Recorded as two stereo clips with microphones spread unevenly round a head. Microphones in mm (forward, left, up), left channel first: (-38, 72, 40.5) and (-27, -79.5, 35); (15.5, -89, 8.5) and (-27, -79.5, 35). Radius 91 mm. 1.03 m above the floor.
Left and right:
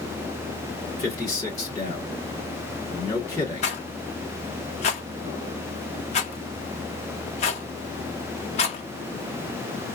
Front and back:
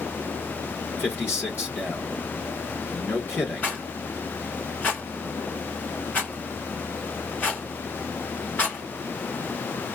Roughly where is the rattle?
Ahead left.